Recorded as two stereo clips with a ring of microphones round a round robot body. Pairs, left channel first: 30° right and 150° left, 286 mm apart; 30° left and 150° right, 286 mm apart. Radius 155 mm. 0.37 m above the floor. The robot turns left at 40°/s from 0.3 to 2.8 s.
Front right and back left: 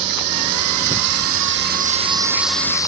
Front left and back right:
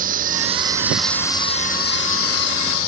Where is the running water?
150° left; by 2.9 s 50° left.